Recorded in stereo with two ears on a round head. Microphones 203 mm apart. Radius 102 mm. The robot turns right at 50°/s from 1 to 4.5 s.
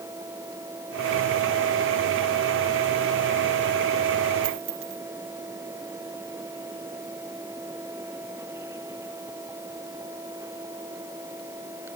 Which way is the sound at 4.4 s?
60° right (ahead or behind).